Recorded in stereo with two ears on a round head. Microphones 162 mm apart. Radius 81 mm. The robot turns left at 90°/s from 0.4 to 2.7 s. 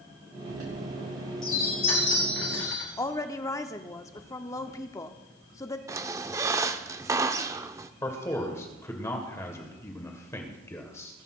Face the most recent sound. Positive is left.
turn(degrees=15)  # may be behind; listen again after turning